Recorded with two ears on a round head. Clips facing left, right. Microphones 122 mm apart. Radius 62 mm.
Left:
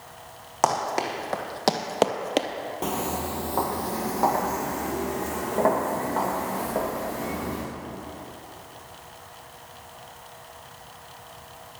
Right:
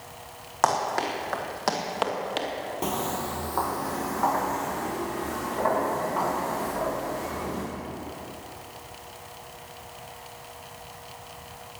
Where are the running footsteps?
15° left (ahead or behind), 3 m; by 2.5 s 55° left (ahead or behind), 1.2 m.